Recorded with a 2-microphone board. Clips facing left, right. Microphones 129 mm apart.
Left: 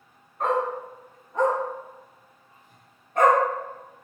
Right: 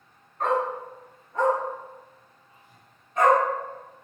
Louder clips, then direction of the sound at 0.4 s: Even; 10° left (ahead or behind).